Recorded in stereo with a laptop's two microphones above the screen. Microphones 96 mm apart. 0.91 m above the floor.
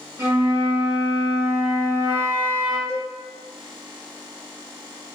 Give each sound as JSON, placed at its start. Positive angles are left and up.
{"t": 0.2, "sound": "a flute", "side_deg": -30, "distance_m": 0.6}
{"t": 2.9, "sound": "a cowbell", "side_deg": -30, "distance_m": 0.5}